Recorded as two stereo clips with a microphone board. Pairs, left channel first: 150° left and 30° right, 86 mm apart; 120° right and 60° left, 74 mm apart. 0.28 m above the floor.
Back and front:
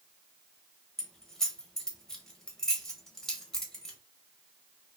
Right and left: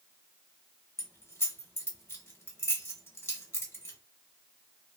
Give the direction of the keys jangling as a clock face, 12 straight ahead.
4 o'clock.